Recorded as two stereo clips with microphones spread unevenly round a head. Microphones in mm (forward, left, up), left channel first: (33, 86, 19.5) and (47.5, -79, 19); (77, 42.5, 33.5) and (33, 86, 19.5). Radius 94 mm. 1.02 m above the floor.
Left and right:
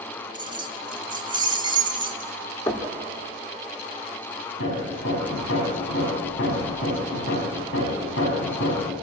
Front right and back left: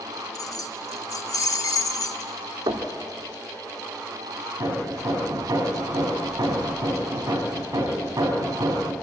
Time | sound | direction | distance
0.3 | keys jangling | 20° right | 1.4 m
2.7 | knocking | 165° left | 1.7 m
4.6 | hammering | 110° left | 4.5 m